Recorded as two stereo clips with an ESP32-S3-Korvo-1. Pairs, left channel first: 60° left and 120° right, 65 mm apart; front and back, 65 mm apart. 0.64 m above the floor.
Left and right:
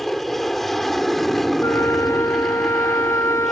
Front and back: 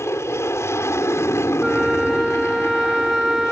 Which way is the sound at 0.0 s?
25° right.